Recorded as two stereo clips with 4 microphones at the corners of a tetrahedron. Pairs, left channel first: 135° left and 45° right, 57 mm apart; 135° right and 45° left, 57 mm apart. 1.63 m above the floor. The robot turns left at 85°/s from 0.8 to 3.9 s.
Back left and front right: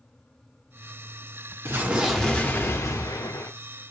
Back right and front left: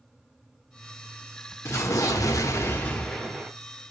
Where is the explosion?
90° right, 0.7 m; by 3.5 s 110° left, 0.7 m.